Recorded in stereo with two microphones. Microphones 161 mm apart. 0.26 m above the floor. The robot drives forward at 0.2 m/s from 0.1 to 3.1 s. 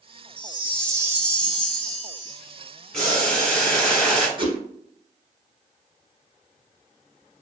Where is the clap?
I don't hear a clap.